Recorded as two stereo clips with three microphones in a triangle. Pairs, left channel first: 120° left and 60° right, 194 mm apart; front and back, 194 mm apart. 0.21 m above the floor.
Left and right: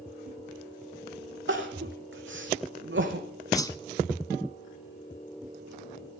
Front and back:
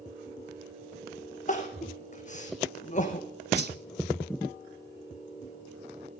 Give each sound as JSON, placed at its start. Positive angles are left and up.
{"t": 1.5, "sound": "crying", "azimuth_deg": -50, "distance_m": 1.9}
{"t": 3.5, "sound": "a whoosh", "azimuth_deg": -170, "distance_m": 0.9}